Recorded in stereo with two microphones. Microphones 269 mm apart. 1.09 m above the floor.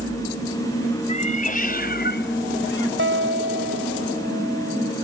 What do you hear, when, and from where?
1.1 s a cat meowing: 25° left (ahead or behind); by 2.9 s 50° left (ahead or behind)
3.0 s a guitar: 50° right (ahead or behind)